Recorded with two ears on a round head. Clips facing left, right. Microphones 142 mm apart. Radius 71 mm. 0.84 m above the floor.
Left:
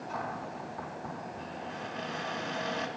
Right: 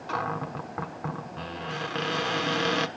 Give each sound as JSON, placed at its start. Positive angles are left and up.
{"t": 0.1, "sound": "a cupboard door", "side_deg": -85, "distance_m": 1.2}